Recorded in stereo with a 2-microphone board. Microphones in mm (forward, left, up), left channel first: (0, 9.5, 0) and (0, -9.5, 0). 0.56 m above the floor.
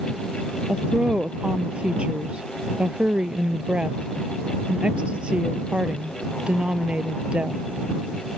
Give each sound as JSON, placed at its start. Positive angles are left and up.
{"t": 0.7, "sound": "a woman speaking", "side_deg": -65}